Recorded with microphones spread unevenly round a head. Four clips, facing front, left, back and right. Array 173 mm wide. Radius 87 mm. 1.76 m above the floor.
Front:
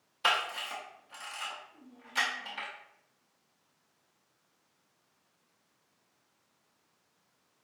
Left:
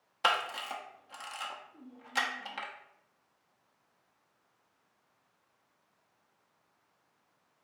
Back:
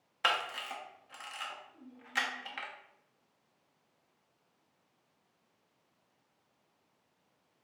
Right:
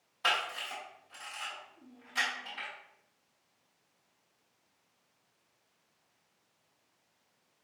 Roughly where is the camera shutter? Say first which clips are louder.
Left 3 dB, front 2 dB; left.